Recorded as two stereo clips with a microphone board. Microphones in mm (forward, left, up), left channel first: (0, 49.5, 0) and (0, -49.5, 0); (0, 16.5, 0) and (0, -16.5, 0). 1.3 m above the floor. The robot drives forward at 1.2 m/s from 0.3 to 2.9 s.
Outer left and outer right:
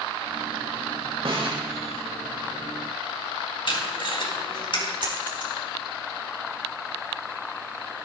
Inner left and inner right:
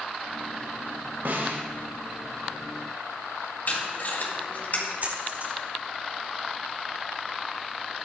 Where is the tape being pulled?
60° left (ahead or behind), 3.5 m.